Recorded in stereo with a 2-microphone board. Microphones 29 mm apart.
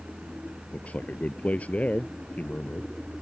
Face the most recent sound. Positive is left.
turn(degrees=55)  # may be behind; listen again after turning